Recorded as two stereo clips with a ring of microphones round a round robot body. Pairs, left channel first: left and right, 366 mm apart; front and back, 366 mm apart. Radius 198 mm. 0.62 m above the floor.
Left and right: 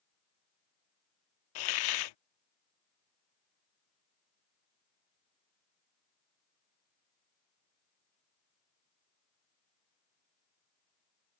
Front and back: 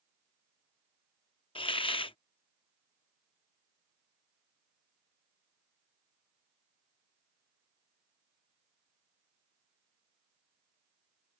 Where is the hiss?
75° left.